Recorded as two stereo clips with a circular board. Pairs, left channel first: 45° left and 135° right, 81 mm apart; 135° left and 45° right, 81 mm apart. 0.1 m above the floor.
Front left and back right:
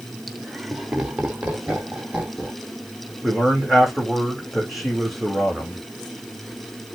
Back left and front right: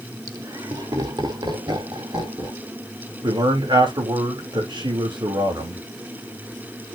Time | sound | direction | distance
0.3 | laughter | 45° right | 1.7 m
3.2 | a man speaking | 45° right | 5 m